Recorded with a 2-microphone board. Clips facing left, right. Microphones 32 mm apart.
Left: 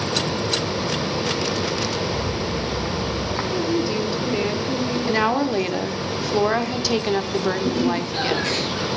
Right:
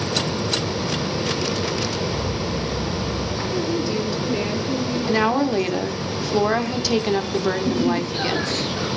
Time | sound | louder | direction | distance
2.1 | a rattle | even | 70° left (ahead or behind) | 4 m
3.5 | a woman speaking | left 1 dB | 10° left (ahead or behind) | 1.5 m
5.1 | a woman speaking | right 1 dB | centre (ahead or behind) | 0.9 m
7.6 | laughter | right 1 dB | 85° left | 10 m